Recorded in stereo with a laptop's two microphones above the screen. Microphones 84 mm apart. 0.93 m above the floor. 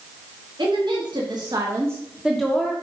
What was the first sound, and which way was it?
A woman speaking, 65° right (ahead or behind).